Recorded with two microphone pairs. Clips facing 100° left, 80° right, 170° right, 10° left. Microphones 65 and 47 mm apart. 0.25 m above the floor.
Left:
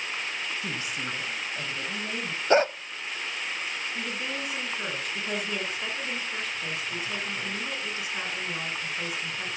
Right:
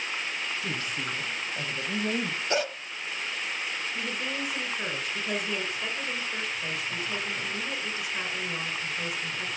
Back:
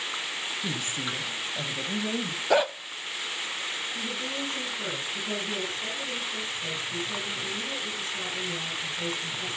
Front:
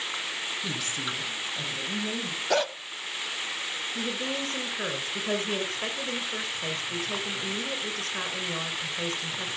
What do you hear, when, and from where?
0.6 s a woman speaking: 145° left, 1.6 m; by 2.4 s 125° right, 1.8 m
2.5 s a dog barking: 120° left, 0.6 m
4.0 s a woman speaking: 15° left, 2.5 m